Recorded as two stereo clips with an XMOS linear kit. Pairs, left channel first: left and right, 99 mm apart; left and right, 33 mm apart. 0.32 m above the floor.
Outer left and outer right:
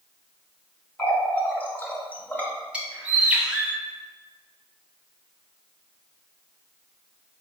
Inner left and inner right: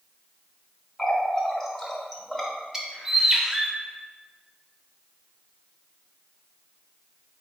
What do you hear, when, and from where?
1.0 s a running tap: 15° left (ahead or behind), 0.8 m
2.7 s a bird: 10° right (ahead or behind), 0.6 m